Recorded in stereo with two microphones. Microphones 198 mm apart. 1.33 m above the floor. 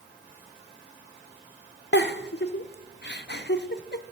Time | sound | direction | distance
1.9 | a giggle | 60° left (ahead or behind) | 0.5 m